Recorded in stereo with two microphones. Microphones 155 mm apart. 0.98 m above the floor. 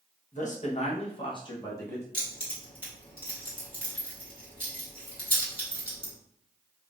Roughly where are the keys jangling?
Left.